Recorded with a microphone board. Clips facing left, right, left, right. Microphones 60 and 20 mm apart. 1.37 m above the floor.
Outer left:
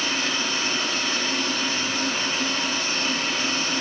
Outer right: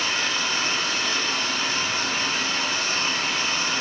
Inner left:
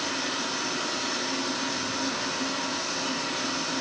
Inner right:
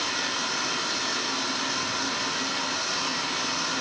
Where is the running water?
75° right (ahead or behind), 4 m.